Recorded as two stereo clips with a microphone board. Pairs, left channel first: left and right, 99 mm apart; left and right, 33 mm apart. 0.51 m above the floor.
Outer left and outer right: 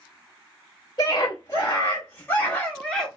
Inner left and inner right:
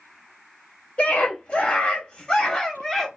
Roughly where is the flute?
I don't hear a flute.